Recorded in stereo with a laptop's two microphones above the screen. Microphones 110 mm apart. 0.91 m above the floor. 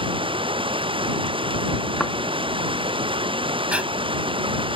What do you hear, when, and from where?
0.0 s running water: 50° right (ahead or behind)
2.0 s a thud: 5° left (ahead or behind)
3.7 s breathing: 10° right (ahead or behind)